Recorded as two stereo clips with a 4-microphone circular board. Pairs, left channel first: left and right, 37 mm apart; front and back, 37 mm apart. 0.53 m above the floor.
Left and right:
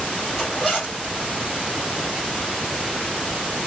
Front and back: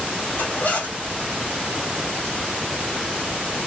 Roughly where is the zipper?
Ahead.